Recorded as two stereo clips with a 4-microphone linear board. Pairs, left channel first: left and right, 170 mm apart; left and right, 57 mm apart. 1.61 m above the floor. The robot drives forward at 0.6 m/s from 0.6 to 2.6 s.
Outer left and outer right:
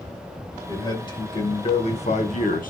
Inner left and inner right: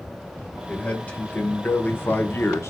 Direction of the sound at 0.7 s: 25° left (ahead or behind).